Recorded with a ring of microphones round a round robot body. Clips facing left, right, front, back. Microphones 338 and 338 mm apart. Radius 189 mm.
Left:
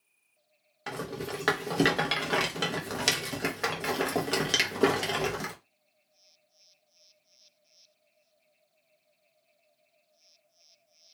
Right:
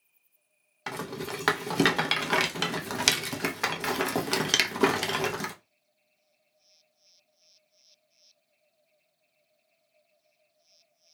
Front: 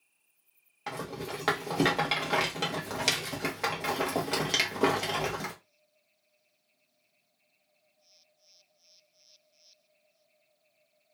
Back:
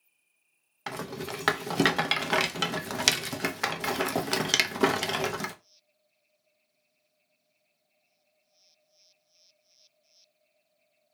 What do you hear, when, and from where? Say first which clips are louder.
0.9 s a rattle: even, back 1 dB; 150° right, 0.6 m